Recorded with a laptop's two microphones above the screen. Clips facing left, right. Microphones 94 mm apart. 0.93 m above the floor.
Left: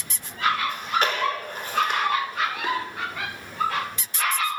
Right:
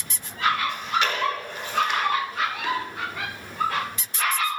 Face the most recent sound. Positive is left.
turn(degrees=40)  # may be behind; listen again after turning